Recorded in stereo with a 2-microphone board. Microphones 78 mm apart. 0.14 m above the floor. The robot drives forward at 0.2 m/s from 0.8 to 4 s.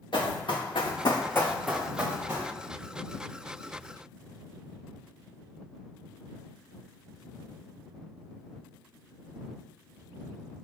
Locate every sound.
0.1 s running footsteps: 80° left, 1.2 m; by 2.5 s 30° right (ahead or behind), 1.4 m